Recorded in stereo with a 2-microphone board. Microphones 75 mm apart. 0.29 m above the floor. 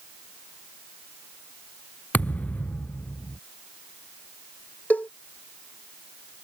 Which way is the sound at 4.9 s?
25° left (ahead or behind).